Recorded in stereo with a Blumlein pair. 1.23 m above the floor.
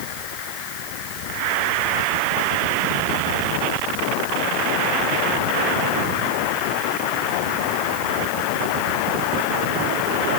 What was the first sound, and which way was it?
Only background noise.